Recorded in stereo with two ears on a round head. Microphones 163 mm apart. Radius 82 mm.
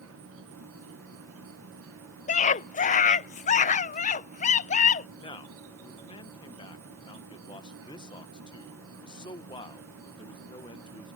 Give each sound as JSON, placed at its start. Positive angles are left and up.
{"t": 0.0, "sound": "an insect", "side_deg": -85}
{"t": 2.3, "sound": "a scream", "side_deg": 40}
{"t": 5.2, "sound": "a man speaking", "side_deg": 25}